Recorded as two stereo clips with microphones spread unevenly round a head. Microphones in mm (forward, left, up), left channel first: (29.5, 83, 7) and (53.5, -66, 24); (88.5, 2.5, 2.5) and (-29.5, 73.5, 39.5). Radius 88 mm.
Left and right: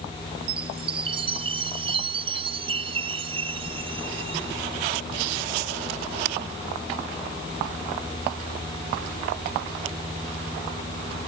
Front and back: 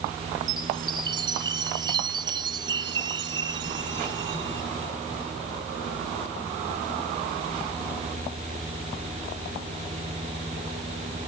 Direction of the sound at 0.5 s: 145° right.